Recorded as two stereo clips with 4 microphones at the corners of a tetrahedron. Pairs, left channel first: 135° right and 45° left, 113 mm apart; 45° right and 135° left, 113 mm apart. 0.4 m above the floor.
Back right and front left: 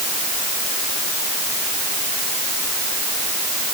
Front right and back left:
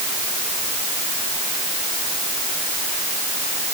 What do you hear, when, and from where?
Only background noise.